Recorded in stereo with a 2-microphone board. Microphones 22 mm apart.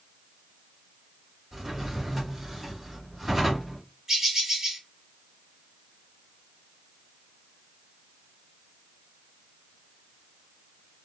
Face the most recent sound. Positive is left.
turn(degrees=-15)  # may be behind; listen again after turning